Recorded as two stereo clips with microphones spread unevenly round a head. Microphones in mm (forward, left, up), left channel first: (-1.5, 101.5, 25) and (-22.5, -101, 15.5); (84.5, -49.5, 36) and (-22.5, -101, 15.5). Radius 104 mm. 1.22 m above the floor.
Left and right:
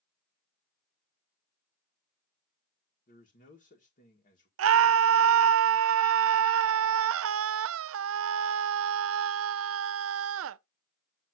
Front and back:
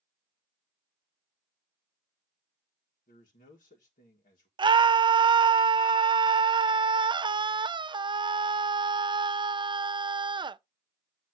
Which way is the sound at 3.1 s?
30° left.